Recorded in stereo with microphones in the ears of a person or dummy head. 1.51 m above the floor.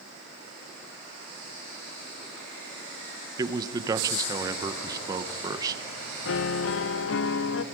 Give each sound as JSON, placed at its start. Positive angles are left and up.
{"t": 3.4, "sound": "a man speaking", "side_deg": -25, "distance_m": 1.2}
{"t": 6.2, "sound": "a piano", "side_deg": 70, "distance_m": 0.8}